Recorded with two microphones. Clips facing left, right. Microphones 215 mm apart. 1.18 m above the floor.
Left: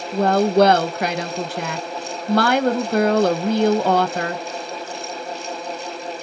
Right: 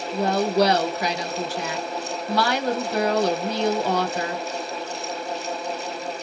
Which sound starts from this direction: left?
A woman speaking, at 0.1 s.